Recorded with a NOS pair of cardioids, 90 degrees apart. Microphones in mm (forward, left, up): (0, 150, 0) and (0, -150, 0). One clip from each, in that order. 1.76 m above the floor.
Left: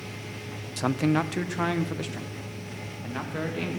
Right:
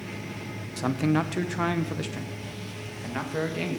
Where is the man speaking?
20° left, 0.7 m; by 3.8 s 10° right, 3 m.